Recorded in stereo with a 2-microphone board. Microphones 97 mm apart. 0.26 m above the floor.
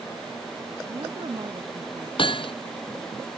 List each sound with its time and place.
0.9 s a woman speaking: 55° right (ahead or behind)
2.2 s hammering: 65° left (ahead or behind)